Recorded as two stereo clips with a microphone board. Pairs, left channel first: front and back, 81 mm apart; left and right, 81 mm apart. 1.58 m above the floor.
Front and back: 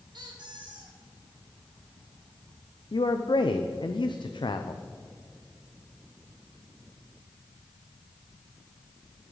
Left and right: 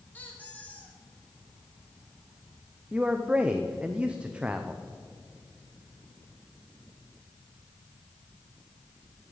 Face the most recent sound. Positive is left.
turn(degrees=-15)